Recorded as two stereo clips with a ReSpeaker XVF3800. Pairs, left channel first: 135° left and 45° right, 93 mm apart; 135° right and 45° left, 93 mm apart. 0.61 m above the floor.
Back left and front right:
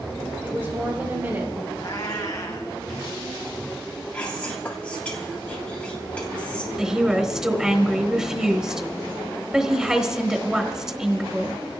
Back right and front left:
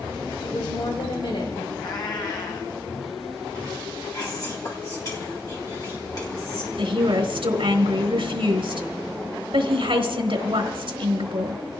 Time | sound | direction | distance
0.4 | a woman speaking | 110° right | 3.5 m
1.8 | a cat meowing | 170° right | 3.5 m
4.1 | whispering | 160° right | 1.6 m
6.8 | a woman speaking | 35° left | 3.5 m